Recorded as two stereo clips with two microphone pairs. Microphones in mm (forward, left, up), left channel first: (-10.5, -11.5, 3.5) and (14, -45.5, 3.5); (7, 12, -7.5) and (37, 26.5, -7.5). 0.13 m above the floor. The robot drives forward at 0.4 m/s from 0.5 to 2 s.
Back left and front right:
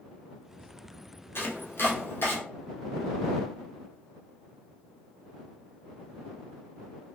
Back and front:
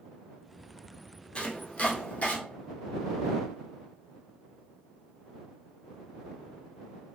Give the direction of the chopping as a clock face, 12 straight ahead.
7 o'clock.